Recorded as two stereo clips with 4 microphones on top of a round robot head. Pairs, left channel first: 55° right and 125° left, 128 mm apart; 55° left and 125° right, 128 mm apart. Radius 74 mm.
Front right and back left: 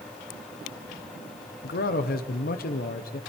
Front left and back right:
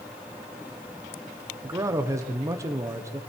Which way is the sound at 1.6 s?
60° right.